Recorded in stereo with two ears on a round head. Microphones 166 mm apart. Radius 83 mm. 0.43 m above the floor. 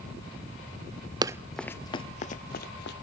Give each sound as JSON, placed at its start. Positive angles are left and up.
{"t": 1.2, "sound": "running footsteps", "side_deg": -20, "distance_m": 0.5}